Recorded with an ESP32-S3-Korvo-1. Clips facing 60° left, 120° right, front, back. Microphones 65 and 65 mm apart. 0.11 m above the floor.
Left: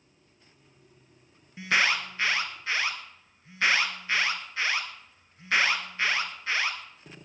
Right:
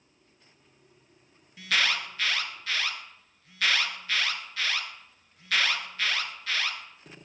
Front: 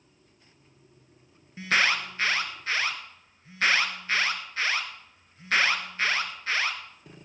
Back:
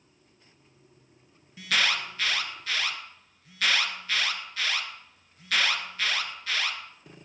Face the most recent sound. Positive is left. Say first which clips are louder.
# left 2 dB, front 3 dB
turn(degrees=20)